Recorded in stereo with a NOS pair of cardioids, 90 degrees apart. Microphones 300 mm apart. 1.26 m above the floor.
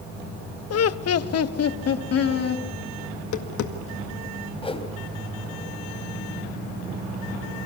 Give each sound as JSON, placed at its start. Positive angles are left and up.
{"t": 0.7, "sound": "laughter", "azimuth_deg": 50, "distance_m": 1.0}
{"t": 3.1, "sound": "tapping", "azimuth_deg": 65, "distance_m": 1.9}
{"t": 4.6, "sound": "a whoosh", "azimuth_deg": 20, "distance_m": 3.5}